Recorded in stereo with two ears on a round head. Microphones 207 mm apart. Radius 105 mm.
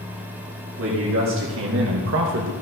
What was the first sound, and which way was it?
A man speaking, 55° right (ahead or behind).